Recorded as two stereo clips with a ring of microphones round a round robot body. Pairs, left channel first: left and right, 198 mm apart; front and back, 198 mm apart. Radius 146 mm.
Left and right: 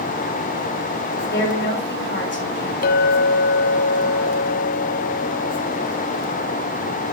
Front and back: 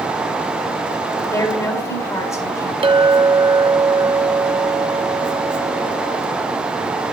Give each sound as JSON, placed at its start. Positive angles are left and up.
{"t": 1.2, "sound": "a woman speaking", "azimuth_deg": 75, "distance_m": 3.5}
{"t": 2.8, "sound": "a clink", "azimuth_deg": 120, "distance_m": 0.7}